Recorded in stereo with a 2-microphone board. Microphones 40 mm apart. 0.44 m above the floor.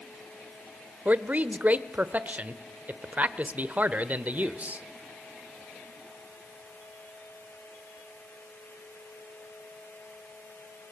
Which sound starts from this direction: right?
A man speaking, at 1.1 s.